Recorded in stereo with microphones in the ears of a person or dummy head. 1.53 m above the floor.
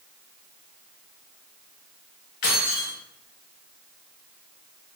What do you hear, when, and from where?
2.4 s keys jangling: 55° left (ahead or behind), 0.7 m